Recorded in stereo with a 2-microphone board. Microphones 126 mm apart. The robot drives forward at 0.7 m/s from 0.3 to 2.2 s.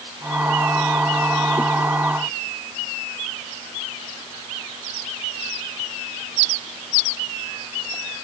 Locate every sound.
Only background noise.